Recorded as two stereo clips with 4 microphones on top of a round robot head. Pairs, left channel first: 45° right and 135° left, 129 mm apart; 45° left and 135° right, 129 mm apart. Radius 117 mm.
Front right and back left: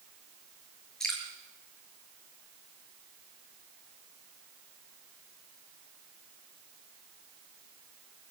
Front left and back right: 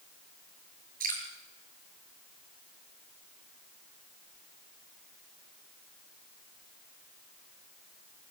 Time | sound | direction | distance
1.0 | dripping | 130° right | 6 m